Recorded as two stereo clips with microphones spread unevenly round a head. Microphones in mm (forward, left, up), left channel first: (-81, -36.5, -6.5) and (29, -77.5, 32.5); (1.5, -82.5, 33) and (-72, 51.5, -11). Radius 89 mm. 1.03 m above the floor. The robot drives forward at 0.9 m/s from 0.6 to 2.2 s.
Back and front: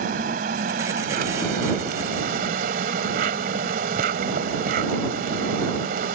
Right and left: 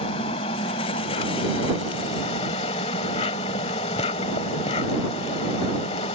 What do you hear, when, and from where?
0.0 s an insect: straight ahead